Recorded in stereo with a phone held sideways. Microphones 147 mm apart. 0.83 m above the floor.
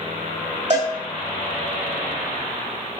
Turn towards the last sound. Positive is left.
turn(degrees=-50)  # may be behind; listen again after turning